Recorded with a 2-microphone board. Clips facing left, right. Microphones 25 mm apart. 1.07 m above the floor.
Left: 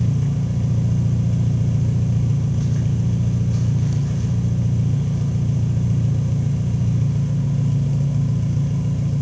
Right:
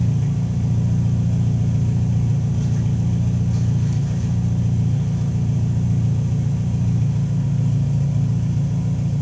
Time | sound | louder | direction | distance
0.0 | an engine running | even | 25° left (ahead or behind) | 3 m